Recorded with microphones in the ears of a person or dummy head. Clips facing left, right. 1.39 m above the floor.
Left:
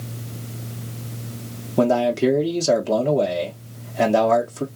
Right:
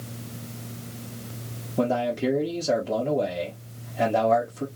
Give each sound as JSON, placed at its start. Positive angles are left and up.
{"t": 1.8, "sound": "a man speaking", "side_deg": 70, "distance_m": 1.0}